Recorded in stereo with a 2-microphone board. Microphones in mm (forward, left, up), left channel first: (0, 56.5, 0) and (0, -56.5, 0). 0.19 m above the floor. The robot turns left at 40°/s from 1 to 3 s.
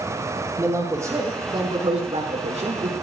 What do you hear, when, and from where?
0.6 s a man speaking: 25° right, 6 m; by 2.9 s 105° right, 6 m